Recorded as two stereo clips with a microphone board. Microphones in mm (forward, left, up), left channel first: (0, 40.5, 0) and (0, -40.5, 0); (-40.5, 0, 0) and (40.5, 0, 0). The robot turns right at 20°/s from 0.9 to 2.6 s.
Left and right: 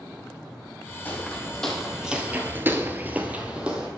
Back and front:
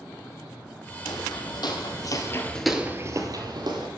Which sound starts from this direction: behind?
Footsteps, at 1.1 s.